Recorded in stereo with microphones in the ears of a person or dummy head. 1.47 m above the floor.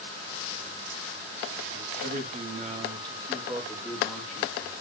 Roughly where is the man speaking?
Right.